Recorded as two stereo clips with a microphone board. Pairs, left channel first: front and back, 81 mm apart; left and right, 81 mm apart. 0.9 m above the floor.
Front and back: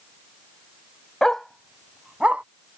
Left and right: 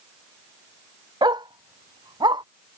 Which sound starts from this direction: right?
A dog barking, at 1.2 s.